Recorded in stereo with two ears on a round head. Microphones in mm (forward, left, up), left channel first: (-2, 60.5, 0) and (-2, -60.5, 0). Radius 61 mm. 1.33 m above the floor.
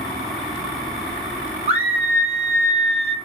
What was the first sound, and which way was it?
A scream, 45° right (ahead or behind).